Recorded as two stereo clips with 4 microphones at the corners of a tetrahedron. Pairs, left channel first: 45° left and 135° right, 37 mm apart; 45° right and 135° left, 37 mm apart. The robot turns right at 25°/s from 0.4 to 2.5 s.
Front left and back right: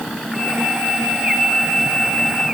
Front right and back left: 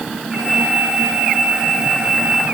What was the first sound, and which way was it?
Only background noise.